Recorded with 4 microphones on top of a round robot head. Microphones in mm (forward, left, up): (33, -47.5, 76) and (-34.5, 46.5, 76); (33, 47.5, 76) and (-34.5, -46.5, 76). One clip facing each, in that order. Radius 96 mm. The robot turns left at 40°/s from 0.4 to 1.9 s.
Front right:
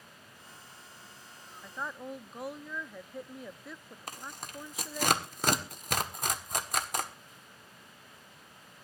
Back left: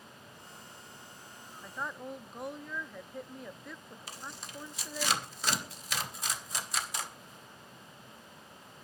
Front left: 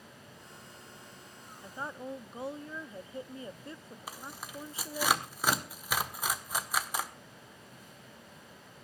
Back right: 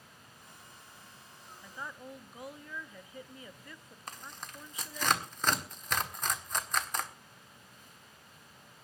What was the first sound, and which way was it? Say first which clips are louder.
A woman speaking: even, front left 5 dB; 40° left.